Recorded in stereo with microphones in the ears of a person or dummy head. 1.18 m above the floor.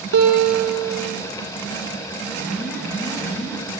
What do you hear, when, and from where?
0.1 s a guitar: 75° right (ahead or behind), 3.5 m
2.4 s an alarm: 15° left (ahead or behind), 7 m